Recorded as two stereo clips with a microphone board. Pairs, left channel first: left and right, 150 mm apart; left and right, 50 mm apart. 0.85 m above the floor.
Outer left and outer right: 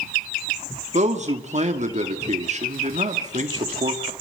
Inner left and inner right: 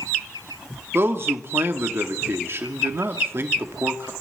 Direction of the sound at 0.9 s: 50° right (ahead or behind).